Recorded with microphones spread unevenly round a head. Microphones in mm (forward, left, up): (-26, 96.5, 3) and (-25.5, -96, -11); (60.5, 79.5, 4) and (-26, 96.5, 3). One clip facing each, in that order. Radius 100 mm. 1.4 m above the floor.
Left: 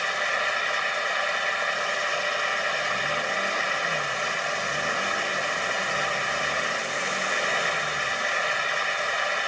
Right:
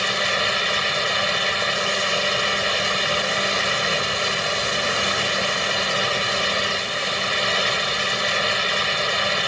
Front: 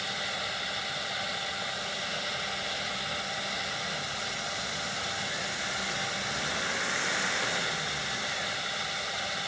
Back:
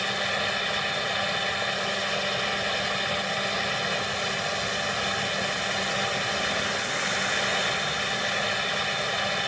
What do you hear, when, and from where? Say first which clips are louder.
0.0 s a fan: right 5 dB, back 7 dB; 130° right